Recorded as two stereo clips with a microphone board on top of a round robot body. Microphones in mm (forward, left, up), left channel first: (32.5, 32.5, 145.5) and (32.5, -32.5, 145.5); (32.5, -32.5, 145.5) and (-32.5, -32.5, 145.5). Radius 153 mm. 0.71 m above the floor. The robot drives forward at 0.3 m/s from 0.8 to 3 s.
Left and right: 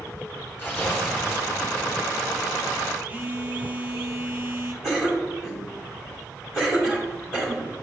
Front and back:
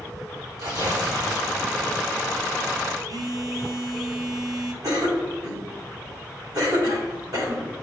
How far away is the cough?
About 2.5 m.